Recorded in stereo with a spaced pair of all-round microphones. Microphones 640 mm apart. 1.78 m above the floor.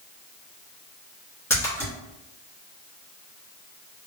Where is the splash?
5° left (ahead or behind), 1.4 m.